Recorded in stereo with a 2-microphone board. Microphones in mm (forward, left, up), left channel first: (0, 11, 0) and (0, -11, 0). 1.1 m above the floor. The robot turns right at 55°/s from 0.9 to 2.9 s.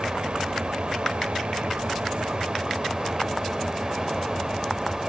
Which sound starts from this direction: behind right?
An engine running, at 0.0 s.